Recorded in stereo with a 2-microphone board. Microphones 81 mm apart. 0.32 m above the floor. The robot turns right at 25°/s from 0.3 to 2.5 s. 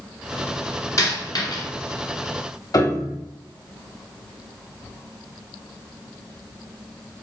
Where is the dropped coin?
40° left (ahead or behind), 2 m; by 1.6 s 60° left (ahead or behind), 2 m.